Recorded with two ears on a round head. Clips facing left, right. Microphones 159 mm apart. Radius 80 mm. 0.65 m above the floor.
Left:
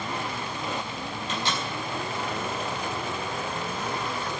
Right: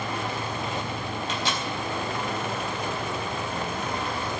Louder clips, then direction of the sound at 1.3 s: Left 1 dB; 70° right (ahead or behind).